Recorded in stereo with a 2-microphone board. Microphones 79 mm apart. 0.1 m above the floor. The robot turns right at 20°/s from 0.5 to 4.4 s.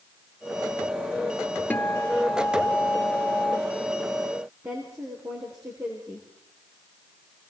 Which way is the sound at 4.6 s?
35° right (ahead or behind).